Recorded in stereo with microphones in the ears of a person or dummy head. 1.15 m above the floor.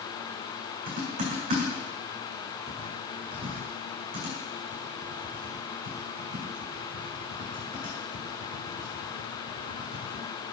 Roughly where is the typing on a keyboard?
Right.